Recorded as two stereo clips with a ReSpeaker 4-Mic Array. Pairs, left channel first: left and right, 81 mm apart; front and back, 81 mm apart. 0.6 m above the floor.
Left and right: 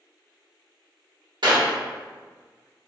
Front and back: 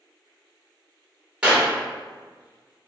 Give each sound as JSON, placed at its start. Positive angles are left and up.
{"t": 1.4, "sound": "a clap", "azimuth_deg": -105, "distance_m": 1.2}